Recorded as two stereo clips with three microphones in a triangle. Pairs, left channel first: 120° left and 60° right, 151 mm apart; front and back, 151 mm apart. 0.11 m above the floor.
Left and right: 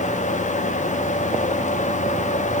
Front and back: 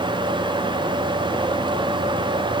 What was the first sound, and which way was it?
Only background noise.